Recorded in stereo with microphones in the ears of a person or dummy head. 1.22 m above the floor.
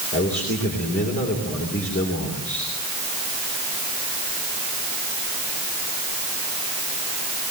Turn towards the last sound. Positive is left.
turn(degrees=50)  # may be behind; listen again after turning